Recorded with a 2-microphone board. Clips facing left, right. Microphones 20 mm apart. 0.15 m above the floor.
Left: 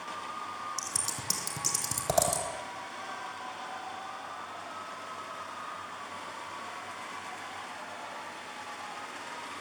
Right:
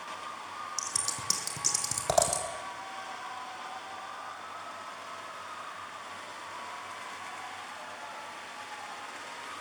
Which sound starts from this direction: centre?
Scissors, at 0.8 s.